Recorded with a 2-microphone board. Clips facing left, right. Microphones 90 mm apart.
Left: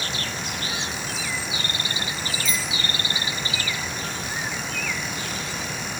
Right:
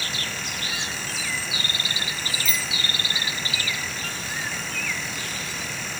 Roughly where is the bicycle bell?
Centre.